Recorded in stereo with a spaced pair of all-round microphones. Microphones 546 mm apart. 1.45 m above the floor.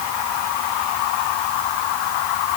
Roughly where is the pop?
No pop in this recording.